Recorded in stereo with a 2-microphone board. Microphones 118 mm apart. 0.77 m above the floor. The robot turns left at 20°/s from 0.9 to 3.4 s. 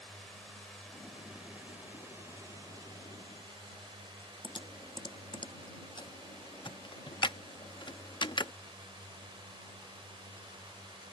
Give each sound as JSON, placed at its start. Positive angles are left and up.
{"t": 0.0, "sound": "a drone", "azimuth_deg": 5}
{"t": 4.4, "sound": "typing on a keyboard", "side_deg": 40}